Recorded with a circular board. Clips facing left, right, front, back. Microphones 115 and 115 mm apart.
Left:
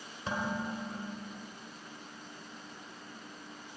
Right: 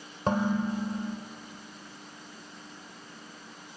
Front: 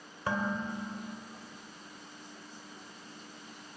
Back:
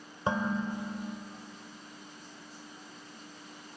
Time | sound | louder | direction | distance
0.3 | dishes clattering | right 8 dB, back 2 dB | 115° right | 1.7 m